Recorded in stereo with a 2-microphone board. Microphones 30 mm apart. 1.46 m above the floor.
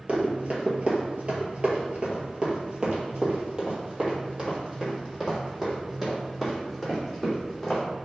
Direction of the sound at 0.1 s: 40° right (ahead or behind).